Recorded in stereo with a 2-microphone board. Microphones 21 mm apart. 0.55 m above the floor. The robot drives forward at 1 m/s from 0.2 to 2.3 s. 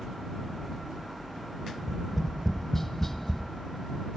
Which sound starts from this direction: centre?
Tapping, at 1.8 s.